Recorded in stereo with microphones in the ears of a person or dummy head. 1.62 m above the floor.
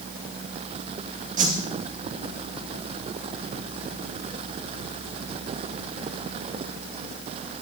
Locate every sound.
1.4 s a whoosh: 30° right (ahead or behind), 2 m